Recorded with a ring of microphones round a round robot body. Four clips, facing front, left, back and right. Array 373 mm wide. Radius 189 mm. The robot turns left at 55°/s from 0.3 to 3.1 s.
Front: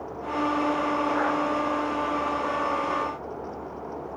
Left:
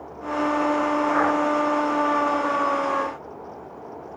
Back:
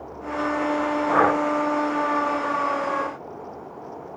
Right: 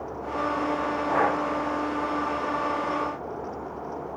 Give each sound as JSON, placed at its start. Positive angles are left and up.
{"t": 1.1, "sound": "breathing", "azimuth_deg": -165}